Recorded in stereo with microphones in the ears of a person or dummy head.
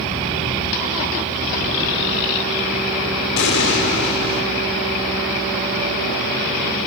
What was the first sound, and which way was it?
An explosion, 60° left (ahead or behind).